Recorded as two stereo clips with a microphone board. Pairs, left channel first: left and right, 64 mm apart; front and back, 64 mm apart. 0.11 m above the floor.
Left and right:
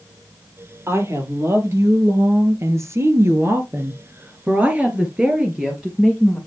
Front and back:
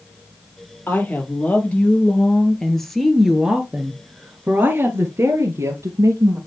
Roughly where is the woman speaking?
Ahead right.